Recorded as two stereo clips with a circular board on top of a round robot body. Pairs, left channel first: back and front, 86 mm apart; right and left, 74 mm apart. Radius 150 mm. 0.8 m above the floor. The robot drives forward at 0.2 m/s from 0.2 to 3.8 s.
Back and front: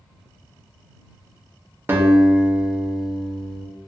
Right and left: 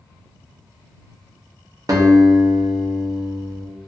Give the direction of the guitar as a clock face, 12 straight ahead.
10 o'clock.